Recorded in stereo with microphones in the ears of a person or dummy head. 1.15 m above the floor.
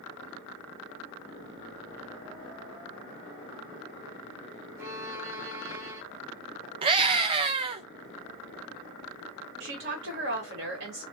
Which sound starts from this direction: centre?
A violin, at 4.8 s.